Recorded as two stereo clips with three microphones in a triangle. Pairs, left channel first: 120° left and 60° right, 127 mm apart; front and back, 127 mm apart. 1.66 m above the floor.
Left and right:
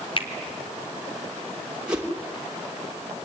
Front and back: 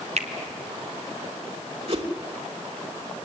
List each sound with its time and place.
0.2 s a finger snap: 160° left, 2 m
1.9 s a whoosh: 140° right, 2.5 m